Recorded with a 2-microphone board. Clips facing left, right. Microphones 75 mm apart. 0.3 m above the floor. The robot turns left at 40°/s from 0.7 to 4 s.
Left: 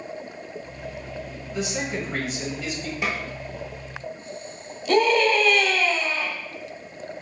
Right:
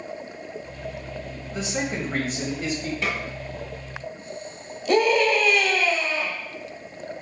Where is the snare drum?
10° left (ahead or behind), 1.1 m; by 3.2 s 15° left (ahead or behind), 1.1 m.